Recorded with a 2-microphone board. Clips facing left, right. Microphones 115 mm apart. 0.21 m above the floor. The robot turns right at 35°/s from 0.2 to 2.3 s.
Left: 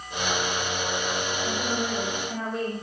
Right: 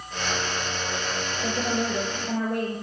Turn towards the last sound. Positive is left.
turn(degrees=-80)